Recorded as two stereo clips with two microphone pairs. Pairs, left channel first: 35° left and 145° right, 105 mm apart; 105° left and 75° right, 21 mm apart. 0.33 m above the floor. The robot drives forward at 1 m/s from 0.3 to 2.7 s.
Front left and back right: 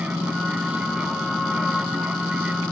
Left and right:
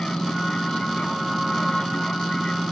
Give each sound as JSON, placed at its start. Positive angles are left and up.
{"t": 0.0, "sound": "an aircraft", "azimuth_deg": 140}